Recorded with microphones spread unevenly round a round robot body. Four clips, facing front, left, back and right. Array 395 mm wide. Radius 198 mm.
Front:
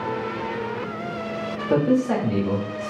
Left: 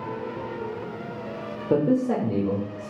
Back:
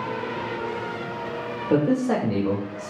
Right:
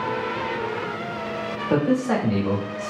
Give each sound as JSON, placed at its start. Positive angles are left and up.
{"t": 1.7, "sound": "a man speaking", "azimuth_deg": 110, "distance_m": 1.0}